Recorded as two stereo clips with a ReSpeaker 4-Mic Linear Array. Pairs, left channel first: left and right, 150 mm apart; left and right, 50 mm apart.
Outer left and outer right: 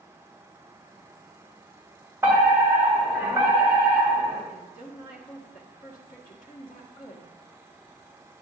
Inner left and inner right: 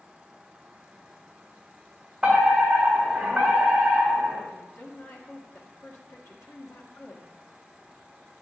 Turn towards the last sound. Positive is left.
turn(degrees=65)  # may be behind; listen again after turning